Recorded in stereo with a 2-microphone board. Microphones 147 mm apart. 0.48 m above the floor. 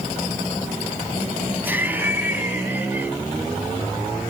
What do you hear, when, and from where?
1.6 s laughter: 15° right (ahead or behind), 3.5 m